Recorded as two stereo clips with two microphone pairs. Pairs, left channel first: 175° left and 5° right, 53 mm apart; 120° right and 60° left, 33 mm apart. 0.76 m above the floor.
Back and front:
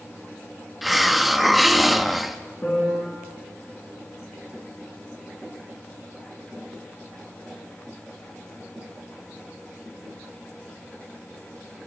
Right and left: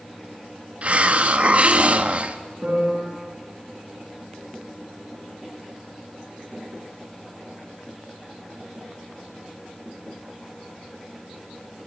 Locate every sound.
0.8 s a hiss: 80° left, 1.1 m
2.6 s a piano: 110° left, 8.5 m